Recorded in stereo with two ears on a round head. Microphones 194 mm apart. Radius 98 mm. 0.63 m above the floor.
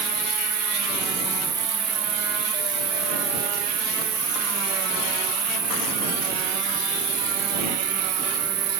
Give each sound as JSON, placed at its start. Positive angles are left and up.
{"t": 0.0, "sound": "an insect", "side_deg": -30}